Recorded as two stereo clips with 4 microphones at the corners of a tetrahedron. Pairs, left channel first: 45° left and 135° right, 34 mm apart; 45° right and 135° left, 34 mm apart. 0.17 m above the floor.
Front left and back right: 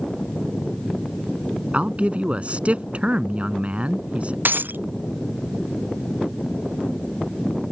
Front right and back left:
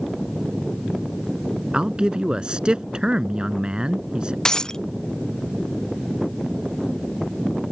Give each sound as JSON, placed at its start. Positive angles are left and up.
{"t": 1.7, "sound": "a man speaking", "azimuth_deg": -170}
{"t": 4.5, "sound": "breaking glass", "azimuth_deg": -120}